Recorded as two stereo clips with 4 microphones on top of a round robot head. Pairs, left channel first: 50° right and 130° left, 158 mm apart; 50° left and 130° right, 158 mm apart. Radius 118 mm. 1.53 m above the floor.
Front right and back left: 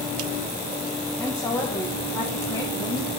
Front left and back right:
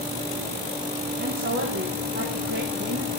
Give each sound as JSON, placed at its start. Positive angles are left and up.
{"t": 1.2, "sound": "a woman speaking", "azimuth_deg": -125, "distance_m": 2.0}